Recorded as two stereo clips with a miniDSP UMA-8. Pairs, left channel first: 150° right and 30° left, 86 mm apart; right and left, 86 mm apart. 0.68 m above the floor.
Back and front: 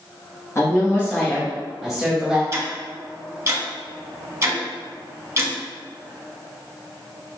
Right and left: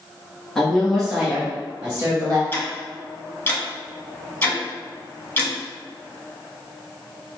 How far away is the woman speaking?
About 1.2 m.